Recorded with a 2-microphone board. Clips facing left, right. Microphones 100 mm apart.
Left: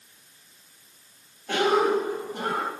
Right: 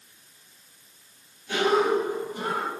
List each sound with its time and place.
1.5 s a cough: 60° left (ahead or behind), 5.5 m